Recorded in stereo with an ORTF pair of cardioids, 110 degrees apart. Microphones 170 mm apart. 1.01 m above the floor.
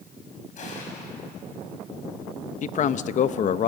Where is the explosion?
45° left, 6.5 m.